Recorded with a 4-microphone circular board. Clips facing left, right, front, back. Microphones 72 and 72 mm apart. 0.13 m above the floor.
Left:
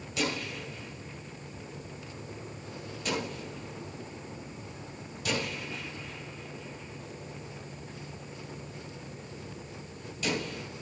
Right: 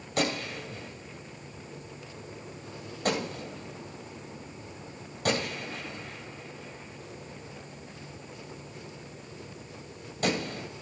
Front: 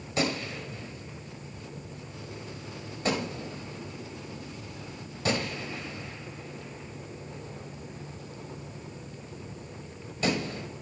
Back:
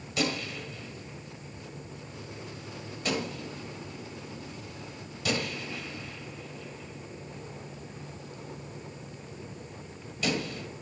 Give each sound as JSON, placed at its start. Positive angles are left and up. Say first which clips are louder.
{"t": 0.2, "sound": "a gunshot", "louder": "right 3 dB, front 1 dB", "azimuth_deg": -50, "distance_m": 1.7}